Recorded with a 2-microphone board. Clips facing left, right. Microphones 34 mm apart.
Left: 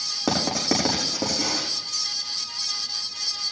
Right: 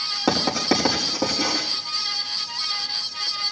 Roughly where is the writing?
Centre.